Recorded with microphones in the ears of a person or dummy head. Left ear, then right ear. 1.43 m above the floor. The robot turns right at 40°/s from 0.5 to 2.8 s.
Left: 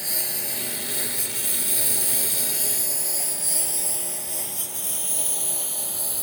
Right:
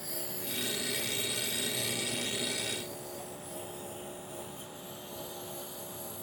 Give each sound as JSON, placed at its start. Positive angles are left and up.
{"t": 0.0, "sound": "a lawn mower", "side_deg": 55}